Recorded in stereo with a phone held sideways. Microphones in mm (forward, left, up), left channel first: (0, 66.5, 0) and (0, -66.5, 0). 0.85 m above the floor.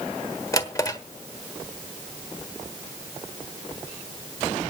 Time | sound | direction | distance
0.5 | a drawer | 25° left (ahead or behind) | 1.2 m